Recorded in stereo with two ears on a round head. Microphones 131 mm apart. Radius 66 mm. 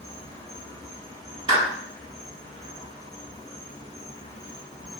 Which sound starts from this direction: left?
An insect, at 0.0 s.